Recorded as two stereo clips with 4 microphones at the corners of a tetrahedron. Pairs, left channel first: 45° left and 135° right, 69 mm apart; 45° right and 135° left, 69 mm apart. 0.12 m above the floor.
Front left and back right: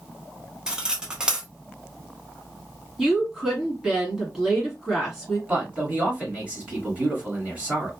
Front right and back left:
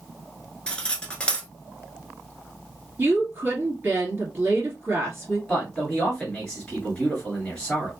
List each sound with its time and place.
0.7 s cutlery clinking: 75° right, 0.7 m
3.0 s a woman speaking: 145° left, 1.7 m
5.5 s a man speaking: 100° right, 1.7 m